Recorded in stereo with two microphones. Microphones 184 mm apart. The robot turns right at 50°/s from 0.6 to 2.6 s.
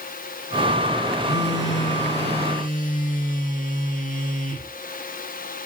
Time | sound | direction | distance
1.2 | a phone buzzing | 65° left | 3 m